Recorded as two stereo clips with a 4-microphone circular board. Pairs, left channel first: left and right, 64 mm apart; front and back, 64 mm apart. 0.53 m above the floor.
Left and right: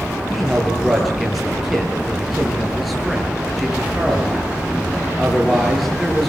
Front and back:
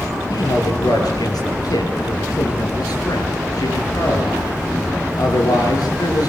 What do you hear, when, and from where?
0.3 s a man speaking: straight ahead, 9 m